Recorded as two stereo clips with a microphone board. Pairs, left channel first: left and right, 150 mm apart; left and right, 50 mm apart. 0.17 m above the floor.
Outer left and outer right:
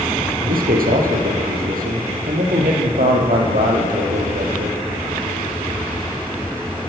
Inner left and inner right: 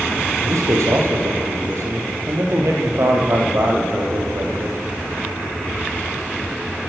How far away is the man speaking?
About 4 m.